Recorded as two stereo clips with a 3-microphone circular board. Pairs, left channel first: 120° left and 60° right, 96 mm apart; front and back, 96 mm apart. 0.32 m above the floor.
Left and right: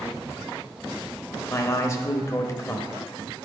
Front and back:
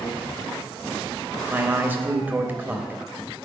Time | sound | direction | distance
1.5 | a man speaking | 130° left | 0.9 m